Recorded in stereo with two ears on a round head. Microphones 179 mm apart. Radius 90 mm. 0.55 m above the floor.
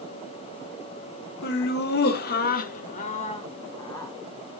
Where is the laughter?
50° left (ahead or behind), 1.6 m; by 4.1 s 15° left (ahead or behind), 1.5 m.